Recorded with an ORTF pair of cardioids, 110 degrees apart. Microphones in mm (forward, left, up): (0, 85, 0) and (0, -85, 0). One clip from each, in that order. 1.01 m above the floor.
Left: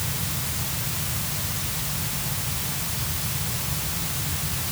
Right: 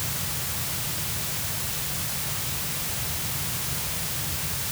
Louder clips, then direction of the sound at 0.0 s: Left 1 dB; 25° left.